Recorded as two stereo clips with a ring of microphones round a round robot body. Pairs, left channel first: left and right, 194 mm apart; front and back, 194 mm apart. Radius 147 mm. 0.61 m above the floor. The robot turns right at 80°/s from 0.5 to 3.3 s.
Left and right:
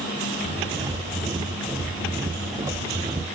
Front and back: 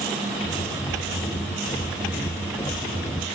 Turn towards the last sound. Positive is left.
No sound to turn to.